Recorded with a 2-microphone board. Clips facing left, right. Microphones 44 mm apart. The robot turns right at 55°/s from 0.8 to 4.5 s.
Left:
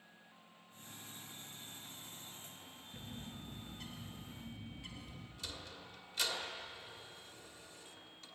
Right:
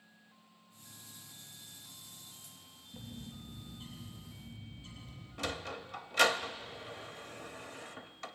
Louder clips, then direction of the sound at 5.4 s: Right 12 dB; 75° right (ahead or behind).